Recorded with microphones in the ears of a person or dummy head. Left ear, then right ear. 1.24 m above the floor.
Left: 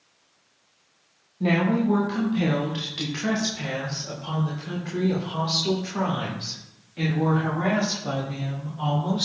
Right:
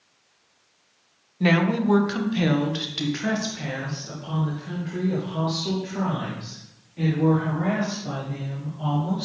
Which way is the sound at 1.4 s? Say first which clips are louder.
Right 2 dB; 60° right (ahead or behind).